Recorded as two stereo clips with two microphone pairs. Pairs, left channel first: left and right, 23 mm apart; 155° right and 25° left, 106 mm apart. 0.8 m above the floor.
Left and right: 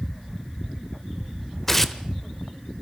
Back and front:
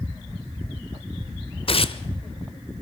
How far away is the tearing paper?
About 1.1 m.